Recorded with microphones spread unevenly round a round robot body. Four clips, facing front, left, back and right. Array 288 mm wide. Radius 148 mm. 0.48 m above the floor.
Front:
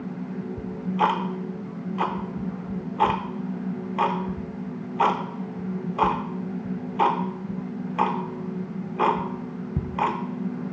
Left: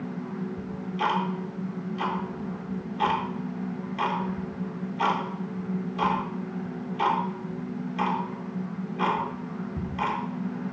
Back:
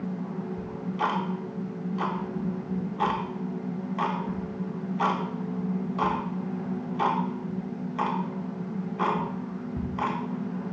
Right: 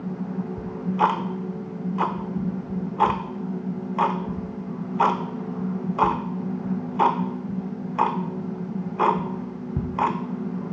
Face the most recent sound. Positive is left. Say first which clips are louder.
# right 8 dB, front 7 dB
turn(degrees=-40)